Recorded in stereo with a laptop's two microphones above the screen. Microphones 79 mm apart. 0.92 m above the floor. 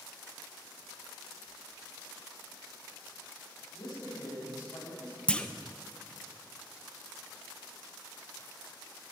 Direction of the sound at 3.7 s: 60° left (ahead or behind).